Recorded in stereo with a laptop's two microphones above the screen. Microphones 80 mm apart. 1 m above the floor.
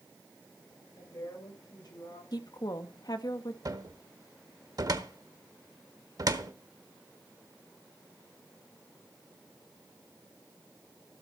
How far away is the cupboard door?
About 0.9 m.